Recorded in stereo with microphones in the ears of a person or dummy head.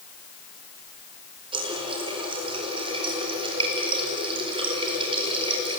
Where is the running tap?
30° right (ahead or behind), 4.5 m.